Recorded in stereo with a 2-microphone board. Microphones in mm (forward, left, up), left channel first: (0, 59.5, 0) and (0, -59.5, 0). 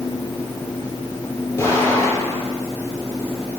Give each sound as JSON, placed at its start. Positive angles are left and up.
{"t": 1.6, "sound": "an explosion", "side_deg": 25, "distance_m": 5.5}